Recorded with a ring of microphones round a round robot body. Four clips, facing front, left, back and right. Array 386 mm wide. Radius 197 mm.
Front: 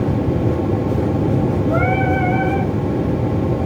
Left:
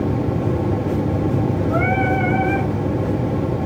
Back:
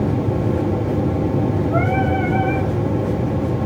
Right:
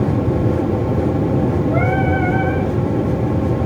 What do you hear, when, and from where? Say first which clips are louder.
1.7 s singing: right 1 dB, front 1 dB; 15° left, 6 m